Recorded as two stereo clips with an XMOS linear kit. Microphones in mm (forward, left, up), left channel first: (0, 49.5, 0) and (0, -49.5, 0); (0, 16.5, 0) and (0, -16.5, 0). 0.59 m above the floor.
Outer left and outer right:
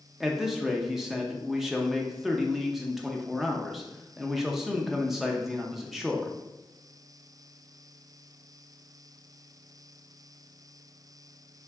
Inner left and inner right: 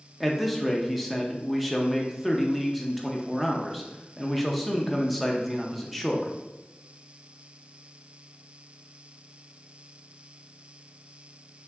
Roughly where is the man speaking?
Centre.